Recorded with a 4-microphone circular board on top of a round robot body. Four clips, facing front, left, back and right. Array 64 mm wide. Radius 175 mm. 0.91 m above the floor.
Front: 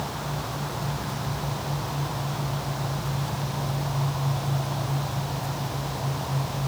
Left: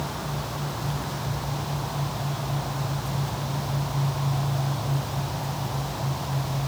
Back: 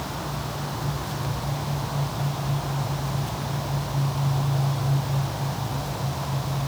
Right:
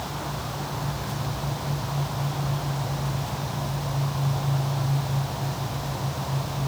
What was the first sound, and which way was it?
Only background noise.